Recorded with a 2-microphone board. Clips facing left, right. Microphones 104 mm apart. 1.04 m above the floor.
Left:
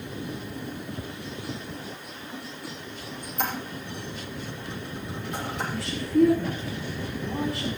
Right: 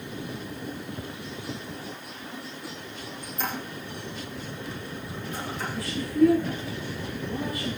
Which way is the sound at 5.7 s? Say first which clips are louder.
Left 6 dB; 75° left (ahead or behind).